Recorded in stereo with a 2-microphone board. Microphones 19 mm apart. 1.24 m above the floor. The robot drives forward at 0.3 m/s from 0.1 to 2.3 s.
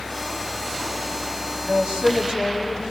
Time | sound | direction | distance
1.6 | a woman speaking | 75° right (ahead or behind) | 6.5 m